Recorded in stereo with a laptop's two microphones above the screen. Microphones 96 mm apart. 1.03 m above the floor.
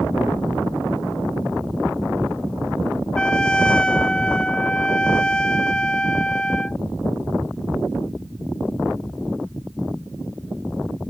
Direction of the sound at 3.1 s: 10° left (ahead or behind).